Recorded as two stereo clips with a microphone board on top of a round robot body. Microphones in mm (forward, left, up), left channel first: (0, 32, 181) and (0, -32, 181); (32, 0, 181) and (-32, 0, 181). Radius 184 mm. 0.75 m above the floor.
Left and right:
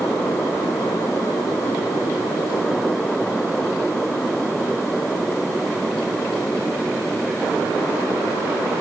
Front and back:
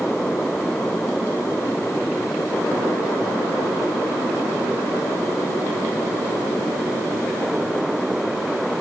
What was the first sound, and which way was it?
Only background noise.